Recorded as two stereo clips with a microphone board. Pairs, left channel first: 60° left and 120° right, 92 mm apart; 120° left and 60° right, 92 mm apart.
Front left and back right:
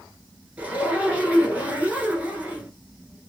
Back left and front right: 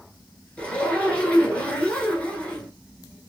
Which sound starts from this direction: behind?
A zipper, at 0.6 s.